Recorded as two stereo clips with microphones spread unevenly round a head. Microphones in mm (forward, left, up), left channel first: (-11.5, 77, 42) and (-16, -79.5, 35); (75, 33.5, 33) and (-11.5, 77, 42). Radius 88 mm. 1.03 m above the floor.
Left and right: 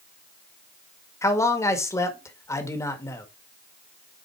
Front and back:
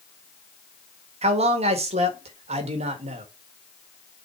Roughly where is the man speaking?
Behind.